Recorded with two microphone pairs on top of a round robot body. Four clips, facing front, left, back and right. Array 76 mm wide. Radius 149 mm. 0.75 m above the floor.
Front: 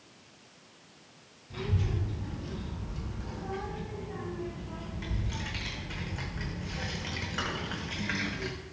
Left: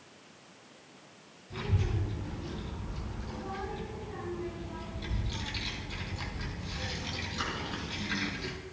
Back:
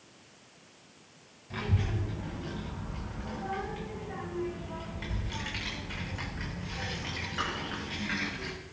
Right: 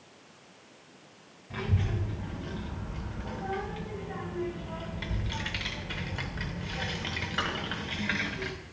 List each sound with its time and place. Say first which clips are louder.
1.5 s a child speaking: right 2 dB, back 1 dB; 135° right, 5 m; by 8.5 s 70° right, 5 m